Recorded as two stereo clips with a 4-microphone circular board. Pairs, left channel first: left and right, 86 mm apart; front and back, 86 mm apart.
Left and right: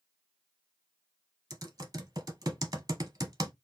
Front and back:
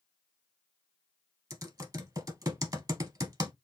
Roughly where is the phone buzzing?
No phone buzzing in this recording.